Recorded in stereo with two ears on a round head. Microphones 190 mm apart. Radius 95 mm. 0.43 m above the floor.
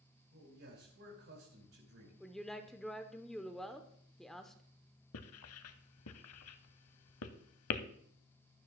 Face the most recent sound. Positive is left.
turn(degrees=75)  # may be behind; listen again after turning